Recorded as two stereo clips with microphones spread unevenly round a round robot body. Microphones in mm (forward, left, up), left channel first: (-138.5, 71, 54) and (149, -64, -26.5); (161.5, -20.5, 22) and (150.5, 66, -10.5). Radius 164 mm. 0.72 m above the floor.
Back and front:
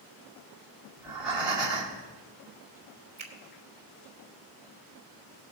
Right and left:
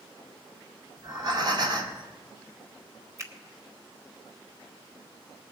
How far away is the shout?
No shout in this recording.